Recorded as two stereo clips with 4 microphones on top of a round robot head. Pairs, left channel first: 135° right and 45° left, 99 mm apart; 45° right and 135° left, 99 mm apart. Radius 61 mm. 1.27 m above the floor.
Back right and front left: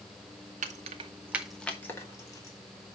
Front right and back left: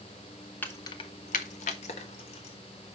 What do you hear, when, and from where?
0.6 s keys jangling: 30° left, 0.9 m; by 2.6 s 75° right, 2 m